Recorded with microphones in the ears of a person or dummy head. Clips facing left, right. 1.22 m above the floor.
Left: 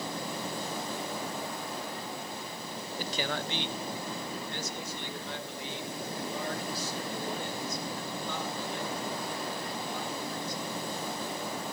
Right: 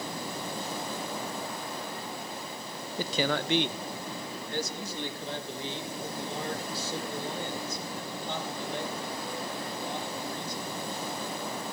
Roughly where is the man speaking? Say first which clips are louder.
Right 6 dB; right.